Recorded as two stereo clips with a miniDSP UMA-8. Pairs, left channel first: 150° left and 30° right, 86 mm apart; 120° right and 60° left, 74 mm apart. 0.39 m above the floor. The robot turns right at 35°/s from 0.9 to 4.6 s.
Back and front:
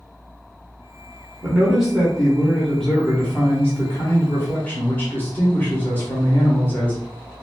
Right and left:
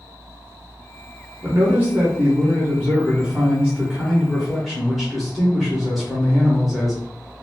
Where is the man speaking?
40° left, 0.8 m; by 7.0 s 150° left, 0.8 m.